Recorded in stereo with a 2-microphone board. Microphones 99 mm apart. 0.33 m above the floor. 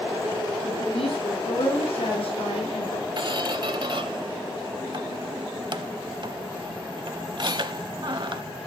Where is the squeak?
50° right (ahead or behind), 0.5 m.